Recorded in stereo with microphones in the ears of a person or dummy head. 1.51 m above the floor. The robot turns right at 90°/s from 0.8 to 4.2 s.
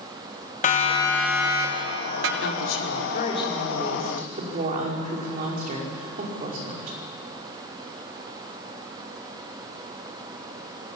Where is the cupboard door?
No cupboard door in this recording.